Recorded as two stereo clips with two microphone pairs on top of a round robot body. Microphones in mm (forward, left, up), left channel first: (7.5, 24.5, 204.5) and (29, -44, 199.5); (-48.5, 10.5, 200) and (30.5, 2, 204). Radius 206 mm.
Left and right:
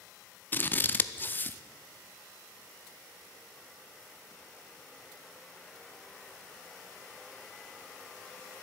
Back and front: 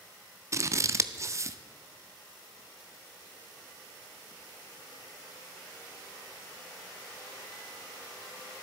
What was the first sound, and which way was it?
Scissors, 40° left.